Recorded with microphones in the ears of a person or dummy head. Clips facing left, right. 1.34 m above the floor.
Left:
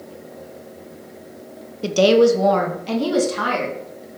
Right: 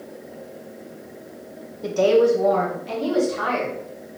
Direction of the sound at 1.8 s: 45° left (ahead or behind).